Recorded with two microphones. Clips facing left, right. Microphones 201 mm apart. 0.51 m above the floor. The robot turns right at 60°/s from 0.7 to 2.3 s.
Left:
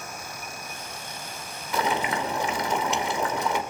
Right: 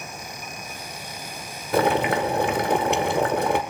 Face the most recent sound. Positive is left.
turn(degrees=-75)